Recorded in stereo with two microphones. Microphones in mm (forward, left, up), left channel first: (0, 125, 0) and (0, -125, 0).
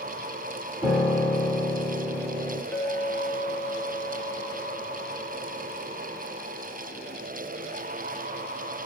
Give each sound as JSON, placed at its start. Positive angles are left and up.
{"t": 0.8, "sound": "a piano", "side_deg": -15, "distance_m": 2.5}
{"t": 2.7, "sound": "a clink", "side_deg": 5, "distance_m": 1.4}